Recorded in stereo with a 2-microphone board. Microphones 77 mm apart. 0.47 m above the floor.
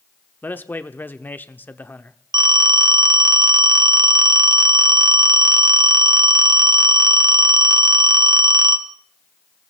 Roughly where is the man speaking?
Left.